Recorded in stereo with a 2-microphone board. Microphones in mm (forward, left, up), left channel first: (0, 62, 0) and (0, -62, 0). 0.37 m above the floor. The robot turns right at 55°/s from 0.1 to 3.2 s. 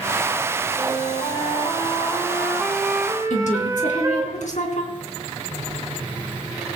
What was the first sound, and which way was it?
A flute, 70° left.